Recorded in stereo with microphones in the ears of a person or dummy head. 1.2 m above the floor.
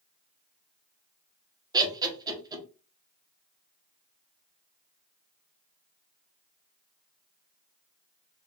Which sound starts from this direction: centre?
Laughter, at 1.7 s.